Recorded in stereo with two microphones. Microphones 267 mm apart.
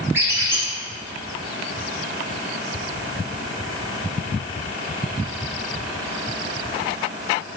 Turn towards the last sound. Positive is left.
turn(degrees=-10)  # may be behind; listen again after turning